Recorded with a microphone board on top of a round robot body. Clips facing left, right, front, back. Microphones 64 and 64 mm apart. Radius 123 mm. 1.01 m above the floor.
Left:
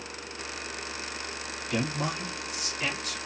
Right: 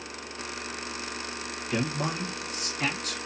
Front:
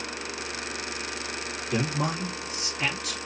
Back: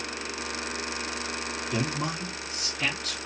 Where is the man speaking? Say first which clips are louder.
Right 1 dB, front 3 dB; 10° right, 1.1 m; by 3.2 s 85° right, 1.0 m.